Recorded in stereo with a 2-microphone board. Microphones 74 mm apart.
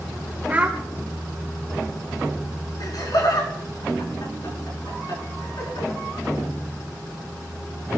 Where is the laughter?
65° left (ahead or behind), 5.5 m.